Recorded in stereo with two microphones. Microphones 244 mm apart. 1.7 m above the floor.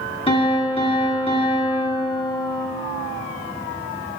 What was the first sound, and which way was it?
A piano, 25° left (ahead or behind).